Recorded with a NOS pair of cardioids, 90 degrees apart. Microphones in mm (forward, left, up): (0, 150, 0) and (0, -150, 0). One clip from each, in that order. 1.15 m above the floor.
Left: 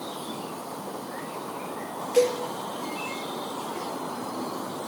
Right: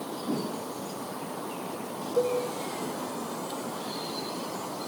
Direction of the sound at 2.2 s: 25° left.